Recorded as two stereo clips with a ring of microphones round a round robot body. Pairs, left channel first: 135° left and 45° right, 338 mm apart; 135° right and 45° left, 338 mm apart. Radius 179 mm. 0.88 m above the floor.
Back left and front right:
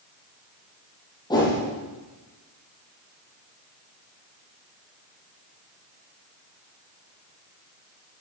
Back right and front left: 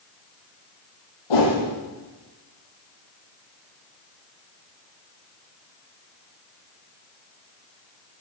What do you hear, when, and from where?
1.3 s a whoosh: 145° right, 9.5 m